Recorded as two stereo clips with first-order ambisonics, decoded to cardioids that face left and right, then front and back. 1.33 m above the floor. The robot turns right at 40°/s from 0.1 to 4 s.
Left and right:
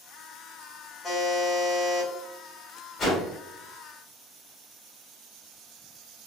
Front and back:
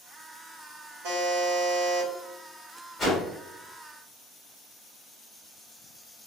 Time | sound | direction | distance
1.0 | a buzzer | straight behind | 1.1 m
3.0 | a whoosh | 55° left | 1.1 m